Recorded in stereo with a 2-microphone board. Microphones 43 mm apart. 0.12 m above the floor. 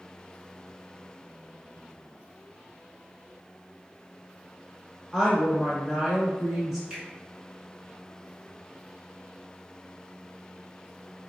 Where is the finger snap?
15° right (ahead or behind), 1.1 m.